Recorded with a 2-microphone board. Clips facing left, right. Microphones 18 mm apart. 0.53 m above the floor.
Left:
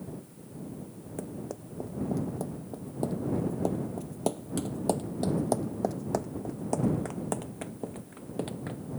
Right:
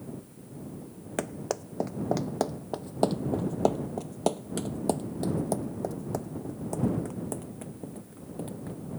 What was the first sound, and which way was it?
Running footsteps, 60° right (ahead or behind).